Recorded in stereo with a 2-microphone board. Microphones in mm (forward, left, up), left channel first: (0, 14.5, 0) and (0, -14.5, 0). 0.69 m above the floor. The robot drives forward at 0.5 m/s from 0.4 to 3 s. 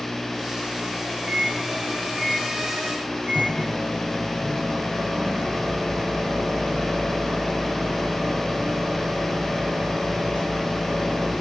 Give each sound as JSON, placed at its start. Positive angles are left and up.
{"t": 1.3, "sound": "a microwave", "side_deg": -50, "distance_m": 2.5}